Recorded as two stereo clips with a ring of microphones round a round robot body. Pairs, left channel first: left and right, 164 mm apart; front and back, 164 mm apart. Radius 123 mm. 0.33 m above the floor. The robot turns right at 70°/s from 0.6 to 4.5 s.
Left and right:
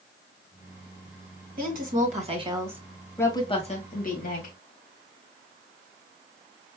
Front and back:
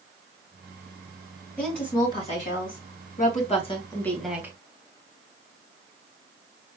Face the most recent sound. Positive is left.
turn(degrees=110)